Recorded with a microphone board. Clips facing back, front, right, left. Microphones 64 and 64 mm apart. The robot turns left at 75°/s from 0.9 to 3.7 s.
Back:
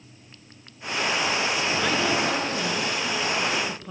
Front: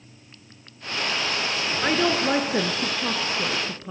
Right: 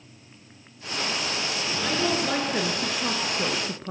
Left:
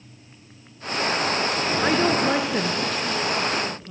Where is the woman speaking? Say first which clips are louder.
Front 4 dB, left 5 dB; 65° left, 2.5 m; by 3.9 s 75° right, 2.5 m.